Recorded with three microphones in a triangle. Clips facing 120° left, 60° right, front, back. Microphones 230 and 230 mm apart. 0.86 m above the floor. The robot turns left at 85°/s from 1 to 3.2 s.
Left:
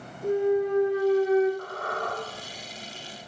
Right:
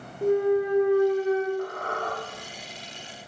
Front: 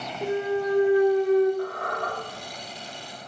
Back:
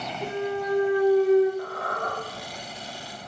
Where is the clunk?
65° right, 0.5 m; by 1.5 s 105° right, 0.5 m.